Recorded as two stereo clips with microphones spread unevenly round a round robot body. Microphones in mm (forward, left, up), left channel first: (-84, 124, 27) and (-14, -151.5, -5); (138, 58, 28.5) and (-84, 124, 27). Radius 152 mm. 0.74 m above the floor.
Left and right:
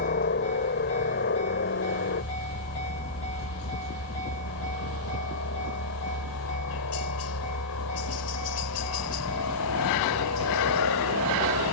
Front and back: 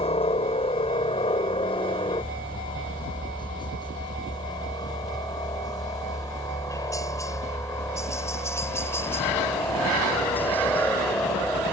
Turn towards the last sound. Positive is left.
turn(degrees=65)